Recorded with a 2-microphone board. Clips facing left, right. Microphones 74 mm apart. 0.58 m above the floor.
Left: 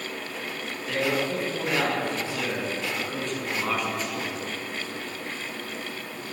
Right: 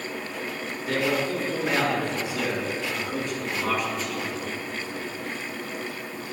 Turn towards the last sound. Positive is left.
turn(degrees=10)  # may be behind; listen again after turning